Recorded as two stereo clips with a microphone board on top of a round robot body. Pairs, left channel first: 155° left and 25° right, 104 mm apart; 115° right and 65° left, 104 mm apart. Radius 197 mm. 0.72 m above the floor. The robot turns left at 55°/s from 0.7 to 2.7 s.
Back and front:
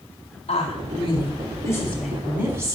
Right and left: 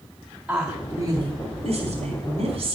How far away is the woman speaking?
About 3.5 m.